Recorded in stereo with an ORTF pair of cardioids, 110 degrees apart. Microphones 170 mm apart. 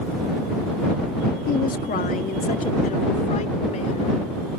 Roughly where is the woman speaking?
Left.